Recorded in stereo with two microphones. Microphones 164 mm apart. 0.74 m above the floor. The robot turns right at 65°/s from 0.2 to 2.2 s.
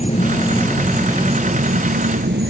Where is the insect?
140° left; by 2.5 s 90° right.